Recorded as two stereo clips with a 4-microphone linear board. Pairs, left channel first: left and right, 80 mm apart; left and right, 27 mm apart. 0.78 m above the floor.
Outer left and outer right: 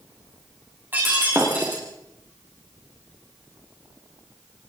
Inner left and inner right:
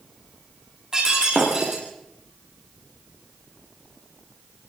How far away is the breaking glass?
About 7.5 m.